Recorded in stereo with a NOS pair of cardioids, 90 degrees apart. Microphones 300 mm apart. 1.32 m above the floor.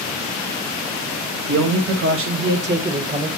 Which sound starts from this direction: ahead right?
A man speaking, at 1.5 s.